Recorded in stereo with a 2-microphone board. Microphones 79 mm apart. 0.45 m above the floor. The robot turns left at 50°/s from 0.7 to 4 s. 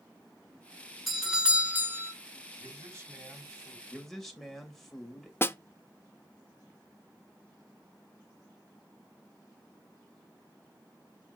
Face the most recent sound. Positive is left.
turn(degrees=30)  # may be behind; listen again after turning